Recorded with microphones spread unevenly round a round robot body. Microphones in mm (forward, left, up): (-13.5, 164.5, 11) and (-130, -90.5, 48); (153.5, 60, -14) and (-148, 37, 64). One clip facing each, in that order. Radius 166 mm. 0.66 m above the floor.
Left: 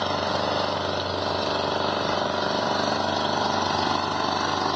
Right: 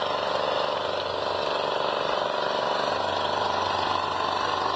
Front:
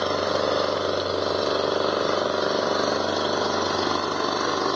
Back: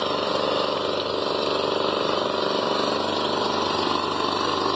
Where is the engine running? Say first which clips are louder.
Left 1 dB, front 1 dB; 100° left.